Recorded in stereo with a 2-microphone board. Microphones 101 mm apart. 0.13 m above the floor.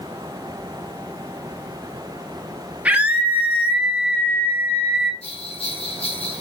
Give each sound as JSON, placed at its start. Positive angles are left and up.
{"t": 2.9, "sound": "a scream", "side_deg": -15, "distance_m": 3.0}
{"t": 5.2, "sound": "a bell", "side_deg": 85, "distance_m": 1.8}